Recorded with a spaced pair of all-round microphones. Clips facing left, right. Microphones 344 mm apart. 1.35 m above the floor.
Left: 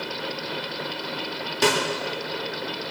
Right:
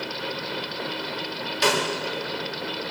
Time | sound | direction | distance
1.6 | a snare drum | 60° left (ahead or behind) | 3.5 m